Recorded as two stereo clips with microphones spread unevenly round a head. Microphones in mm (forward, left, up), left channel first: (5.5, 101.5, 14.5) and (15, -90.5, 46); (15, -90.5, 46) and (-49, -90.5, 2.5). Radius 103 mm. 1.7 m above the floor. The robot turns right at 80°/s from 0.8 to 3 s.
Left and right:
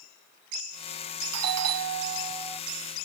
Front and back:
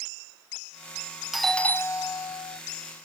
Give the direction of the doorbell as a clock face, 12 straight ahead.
3 o'clock.